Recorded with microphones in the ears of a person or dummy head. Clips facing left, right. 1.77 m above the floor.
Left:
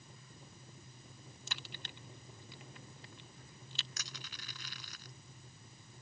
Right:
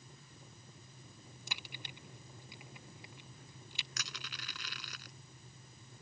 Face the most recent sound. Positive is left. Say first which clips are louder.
# right 2 dB
turn(degrees=-55)  # may be behind; listen again after turning